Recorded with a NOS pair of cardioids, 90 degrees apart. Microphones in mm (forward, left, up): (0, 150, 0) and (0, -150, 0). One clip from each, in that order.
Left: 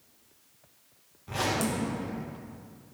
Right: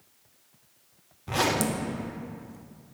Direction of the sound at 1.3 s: 40° right.